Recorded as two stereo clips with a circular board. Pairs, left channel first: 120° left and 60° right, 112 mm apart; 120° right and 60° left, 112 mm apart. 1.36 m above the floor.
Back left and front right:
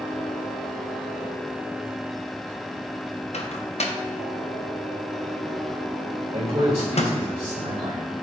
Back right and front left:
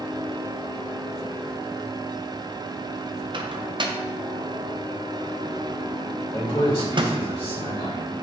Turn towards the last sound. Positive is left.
turn(degrees=-80)